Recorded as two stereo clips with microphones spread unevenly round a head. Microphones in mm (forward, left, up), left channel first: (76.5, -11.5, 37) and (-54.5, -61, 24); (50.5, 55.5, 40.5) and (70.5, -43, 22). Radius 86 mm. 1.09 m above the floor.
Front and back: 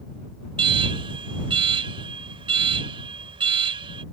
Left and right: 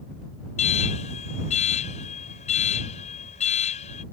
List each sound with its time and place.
0.6 s an alarm: 140° left